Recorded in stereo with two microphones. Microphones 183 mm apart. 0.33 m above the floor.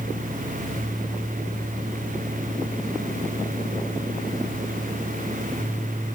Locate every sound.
Only background noise.